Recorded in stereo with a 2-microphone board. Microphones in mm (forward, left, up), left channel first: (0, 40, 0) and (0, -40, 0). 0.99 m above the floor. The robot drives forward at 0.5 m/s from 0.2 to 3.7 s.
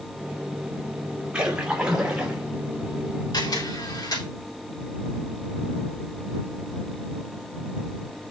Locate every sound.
1.3 s a splash: 10° right (ahead or behind), 2.5 m
3.3 s a camera shutter: 60° left (ahead or behind), 3.5 m